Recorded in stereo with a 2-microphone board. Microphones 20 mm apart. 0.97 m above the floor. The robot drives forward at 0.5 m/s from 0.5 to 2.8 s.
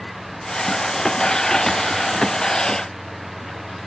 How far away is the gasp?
No gasp in this recording.